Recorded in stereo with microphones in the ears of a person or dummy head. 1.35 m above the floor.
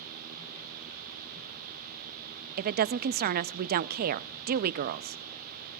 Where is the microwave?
No microwave in this recording.